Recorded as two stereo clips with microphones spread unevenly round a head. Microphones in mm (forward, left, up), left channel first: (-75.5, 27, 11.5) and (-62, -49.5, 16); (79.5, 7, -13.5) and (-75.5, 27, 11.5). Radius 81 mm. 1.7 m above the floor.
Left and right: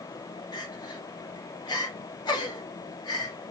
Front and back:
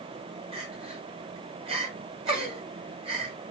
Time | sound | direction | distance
0.5 | crying | 125° left | 1.5 m